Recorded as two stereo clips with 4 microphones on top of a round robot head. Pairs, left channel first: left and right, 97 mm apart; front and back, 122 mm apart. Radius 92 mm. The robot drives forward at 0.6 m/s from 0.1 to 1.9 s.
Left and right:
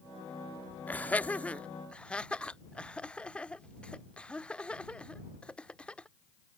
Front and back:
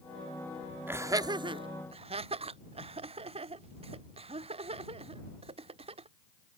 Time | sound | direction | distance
0.9 | laughter | 135° left | ?